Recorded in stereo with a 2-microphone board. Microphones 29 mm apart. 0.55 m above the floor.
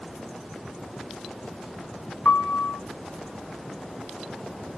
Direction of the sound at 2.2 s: 75° left (ahead or behind).